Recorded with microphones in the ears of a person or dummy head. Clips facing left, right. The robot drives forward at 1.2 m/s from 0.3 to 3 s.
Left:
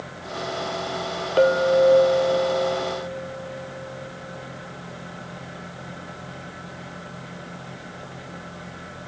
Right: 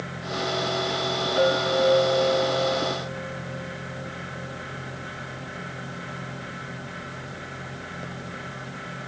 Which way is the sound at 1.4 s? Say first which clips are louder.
Left 6 dB; 45° left (ahead or behind).